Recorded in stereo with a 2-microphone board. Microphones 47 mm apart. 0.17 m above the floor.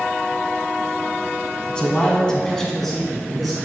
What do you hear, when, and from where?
1.7 s a man speaking: 20° left (ahead or behind), 1.0 m; by 3.5 s centre (ahead or behind), 1.5 m